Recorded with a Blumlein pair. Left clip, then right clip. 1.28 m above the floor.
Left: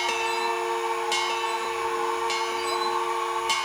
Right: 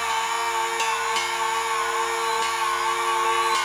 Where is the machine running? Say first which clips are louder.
Right 2 dB; 40° right, 4.5 m.